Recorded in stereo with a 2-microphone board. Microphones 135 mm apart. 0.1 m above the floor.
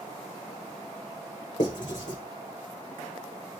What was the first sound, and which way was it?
Writing, 80° left.